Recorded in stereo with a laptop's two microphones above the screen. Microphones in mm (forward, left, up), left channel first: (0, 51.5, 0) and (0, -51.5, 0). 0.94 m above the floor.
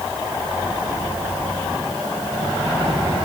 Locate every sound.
Only background noise.